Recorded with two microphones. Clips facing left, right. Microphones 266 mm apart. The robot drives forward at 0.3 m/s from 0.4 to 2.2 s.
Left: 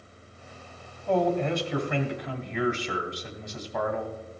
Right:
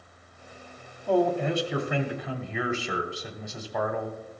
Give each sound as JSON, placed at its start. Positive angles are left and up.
{"t": 1.1, "sound": "a man speaking", "side_deg": -5, "distance_m": 1.1}